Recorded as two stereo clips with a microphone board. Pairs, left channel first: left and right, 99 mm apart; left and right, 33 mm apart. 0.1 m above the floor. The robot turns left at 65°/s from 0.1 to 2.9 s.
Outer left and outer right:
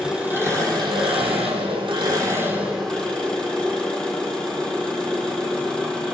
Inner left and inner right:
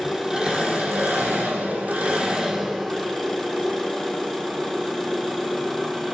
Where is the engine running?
5° right, 1.3 m; by 6.2 s 170° left, 1.3 m.